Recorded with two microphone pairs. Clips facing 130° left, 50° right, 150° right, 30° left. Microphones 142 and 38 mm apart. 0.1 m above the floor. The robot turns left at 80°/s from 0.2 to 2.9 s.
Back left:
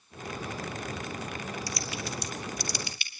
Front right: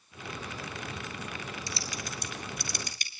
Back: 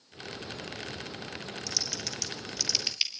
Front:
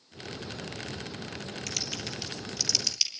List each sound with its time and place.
1.7 s typing on a keyboard: 15° left, 2.5 m; by 3.1 s 85° right, 2.5 m